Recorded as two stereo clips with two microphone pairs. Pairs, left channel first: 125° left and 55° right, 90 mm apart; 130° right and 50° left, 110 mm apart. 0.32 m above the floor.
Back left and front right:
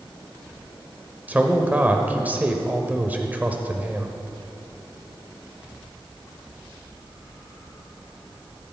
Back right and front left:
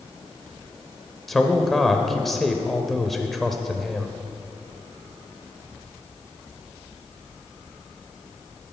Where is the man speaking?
40° right, 0.8 m.